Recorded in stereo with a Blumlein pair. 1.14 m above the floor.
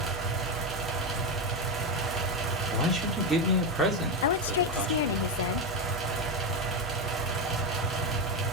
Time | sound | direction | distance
0.0 | a fan | 10° right | 4 m
2.7 | a man speaking | 5° right | 3 m
4.2 | a woman speaking | 60° left | 0.8 m